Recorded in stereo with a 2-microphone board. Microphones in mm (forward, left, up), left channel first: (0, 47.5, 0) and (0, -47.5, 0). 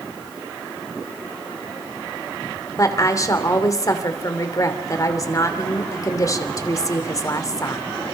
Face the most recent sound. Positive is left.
turn(degrees=35)  # may be behind; listen again after turning